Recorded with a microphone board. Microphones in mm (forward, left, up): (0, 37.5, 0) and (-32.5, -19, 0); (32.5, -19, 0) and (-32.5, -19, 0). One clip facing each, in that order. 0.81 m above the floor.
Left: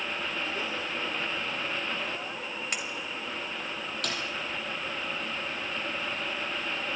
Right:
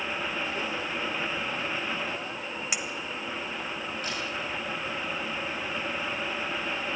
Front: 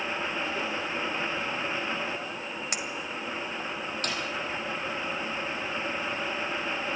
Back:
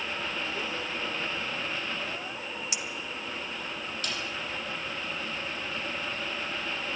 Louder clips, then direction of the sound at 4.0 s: Left 3 dB, front 3 dB; 45° left.